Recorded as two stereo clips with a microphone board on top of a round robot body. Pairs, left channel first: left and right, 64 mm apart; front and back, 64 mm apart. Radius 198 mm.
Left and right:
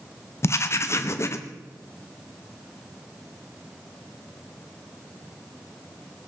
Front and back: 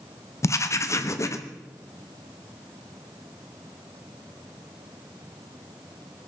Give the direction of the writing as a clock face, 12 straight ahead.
11 o'clock.